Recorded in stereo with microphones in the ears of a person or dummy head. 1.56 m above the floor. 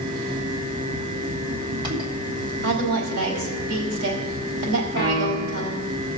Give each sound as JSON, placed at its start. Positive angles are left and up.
{"t": 0.0, "sound": "a fan", "side_deg": -25, "distance_m": 1.6}
{"t": 2.6, "sound": "a woman speaking", "side_deg": -60, "distance_m": 4.0}
{"t": 5.0, "sound": "a piano", "side_deg": 20, "distance_m": 4.0}